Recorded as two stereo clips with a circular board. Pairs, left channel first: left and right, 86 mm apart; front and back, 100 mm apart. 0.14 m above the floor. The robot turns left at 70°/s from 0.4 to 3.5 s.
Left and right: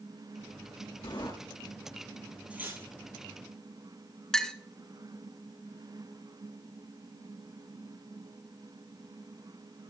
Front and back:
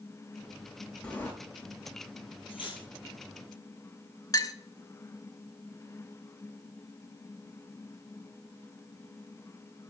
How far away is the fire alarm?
I don't hear a fire alarm.